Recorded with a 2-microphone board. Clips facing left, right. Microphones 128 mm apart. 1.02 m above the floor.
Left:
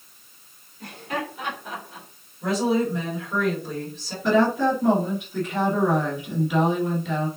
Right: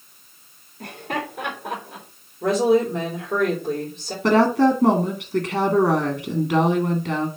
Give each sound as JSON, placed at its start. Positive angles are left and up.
{"t": 0.8, "sound": "laughter", "side_deg": -55, "distance_m": 3.0}
{"t": 2.4, "sound": "a woman speaking", "side_deg": -55, "distance_m": 4.0}
{"t": 4.2, "sound": "a woman speaking", "side_deg": -85, "distance_m": 1.9}